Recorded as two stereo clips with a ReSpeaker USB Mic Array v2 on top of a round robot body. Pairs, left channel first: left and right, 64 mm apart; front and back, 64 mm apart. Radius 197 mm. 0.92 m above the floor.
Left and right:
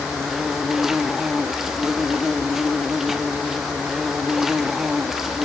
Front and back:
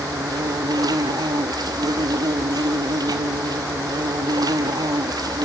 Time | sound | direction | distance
0.0 | an insect | 175° right | 0.8 m